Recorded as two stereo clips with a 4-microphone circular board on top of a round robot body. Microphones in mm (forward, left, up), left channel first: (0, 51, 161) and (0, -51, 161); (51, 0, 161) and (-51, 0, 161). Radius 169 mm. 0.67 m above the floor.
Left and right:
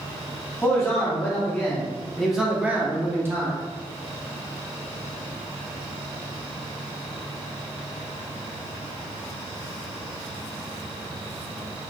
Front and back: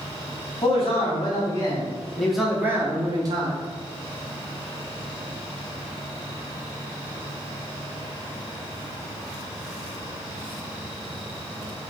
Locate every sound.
0.6 s a man speaking: 30° left, 1.6 m; by 3.6 s 150° right, 1.3 m